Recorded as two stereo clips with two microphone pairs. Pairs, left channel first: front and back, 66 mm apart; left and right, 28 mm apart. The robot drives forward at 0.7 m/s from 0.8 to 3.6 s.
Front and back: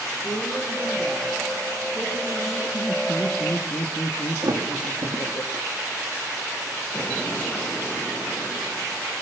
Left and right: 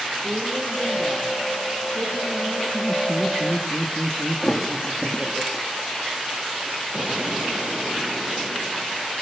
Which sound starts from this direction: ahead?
Laughter, at 2.7 s.